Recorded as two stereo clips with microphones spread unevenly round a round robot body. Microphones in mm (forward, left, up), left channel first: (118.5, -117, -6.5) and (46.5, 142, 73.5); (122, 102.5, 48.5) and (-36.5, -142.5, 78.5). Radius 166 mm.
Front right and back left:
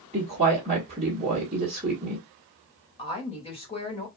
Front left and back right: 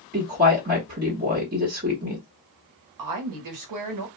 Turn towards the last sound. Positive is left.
turn(degrees=-135)